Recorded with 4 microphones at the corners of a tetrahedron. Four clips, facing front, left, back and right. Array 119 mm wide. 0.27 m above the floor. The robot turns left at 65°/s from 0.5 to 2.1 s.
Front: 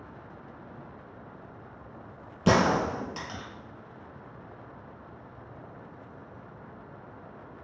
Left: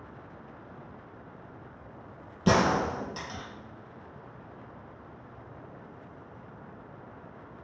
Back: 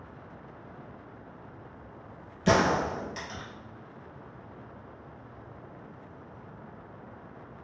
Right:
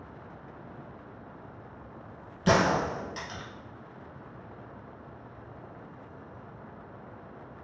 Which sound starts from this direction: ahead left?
A gunshot, at 2.5 s.